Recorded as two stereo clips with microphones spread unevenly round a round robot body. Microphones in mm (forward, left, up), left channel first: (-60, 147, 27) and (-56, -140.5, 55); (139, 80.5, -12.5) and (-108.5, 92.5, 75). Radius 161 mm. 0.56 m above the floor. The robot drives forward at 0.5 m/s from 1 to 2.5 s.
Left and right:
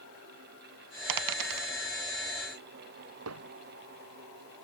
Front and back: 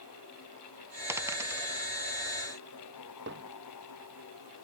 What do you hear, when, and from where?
1.1 s a dropped coin: 100° right
3.3 s hammering: 125° right